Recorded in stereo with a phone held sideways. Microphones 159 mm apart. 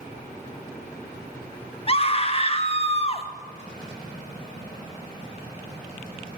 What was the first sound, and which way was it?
A scream, 35° left (ahead or behind).